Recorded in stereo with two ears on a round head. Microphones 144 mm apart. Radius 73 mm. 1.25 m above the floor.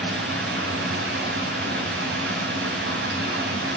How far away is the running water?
About 6 m.